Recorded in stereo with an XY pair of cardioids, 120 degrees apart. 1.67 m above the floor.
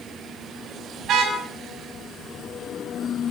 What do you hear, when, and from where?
1.0 s a car horn: 60° right, 5.5 m